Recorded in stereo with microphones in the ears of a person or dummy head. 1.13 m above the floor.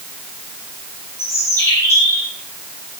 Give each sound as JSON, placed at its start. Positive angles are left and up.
{"t": 1.2, "sound": "a bird", "side_deg": 15, "distance_m": 8.5}